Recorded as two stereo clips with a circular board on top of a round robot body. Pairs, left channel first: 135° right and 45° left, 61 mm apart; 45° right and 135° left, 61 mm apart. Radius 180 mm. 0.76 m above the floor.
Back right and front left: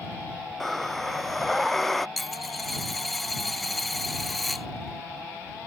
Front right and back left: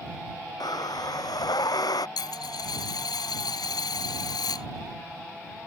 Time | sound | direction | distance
0.6 | breathing | 50° right | ?
2.2 | a dropped coin | 45° right | ?